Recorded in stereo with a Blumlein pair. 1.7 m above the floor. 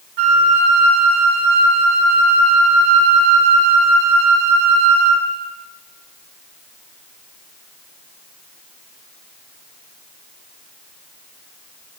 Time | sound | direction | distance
0.2 | a flute | 45° right | 0.8 m